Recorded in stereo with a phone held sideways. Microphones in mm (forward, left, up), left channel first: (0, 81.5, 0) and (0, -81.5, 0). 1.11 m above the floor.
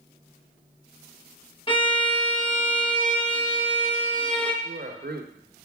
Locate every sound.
1.7 s a violin: 30° left (ahead or behind), 0.9 m
4.6 s a man speaking: 65° right (ahead or behind), 0.9 m